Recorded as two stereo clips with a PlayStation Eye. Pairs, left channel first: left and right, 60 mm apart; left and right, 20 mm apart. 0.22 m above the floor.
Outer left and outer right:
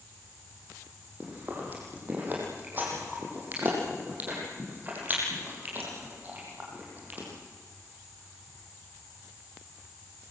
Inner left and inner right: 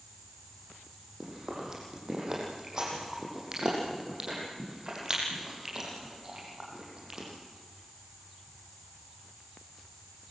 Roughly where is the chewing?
Right.